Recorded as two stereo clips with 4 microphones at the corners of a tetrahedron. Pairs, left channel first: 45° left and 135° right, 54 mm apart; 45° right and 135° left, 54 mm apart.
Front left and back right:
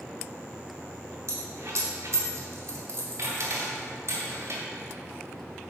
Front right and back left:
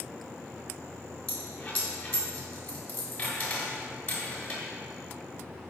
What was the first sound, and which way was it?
A dropped coin, 100° right.